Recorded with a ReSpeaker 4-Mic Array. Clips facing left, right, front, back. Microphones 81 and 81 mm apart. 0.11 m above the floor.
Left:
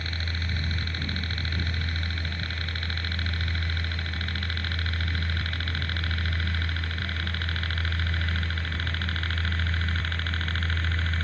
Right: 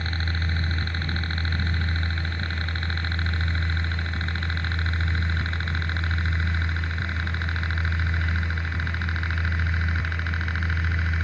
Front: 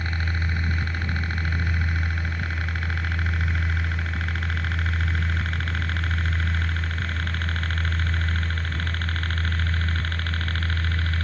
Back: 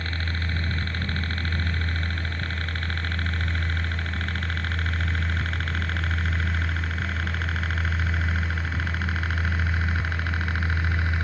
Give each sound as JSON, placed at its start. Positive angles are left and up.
{"t": 0.0, "sound": "a helicopter", "azimuth_deg": -65}